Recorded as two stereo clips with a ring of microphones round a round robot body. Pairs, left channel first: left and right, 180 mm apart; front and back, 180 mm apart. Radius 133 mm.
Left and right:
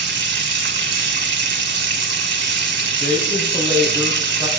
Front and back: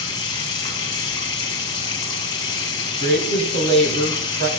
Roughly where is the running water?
Right.